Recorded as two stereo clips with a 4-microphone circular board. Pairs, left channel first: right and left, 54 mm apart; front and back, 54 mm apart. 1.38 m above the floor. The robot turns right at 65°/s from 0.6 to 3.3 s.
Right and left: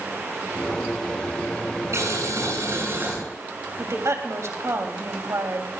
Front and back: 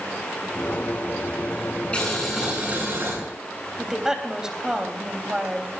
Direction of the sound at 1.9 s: 70° left.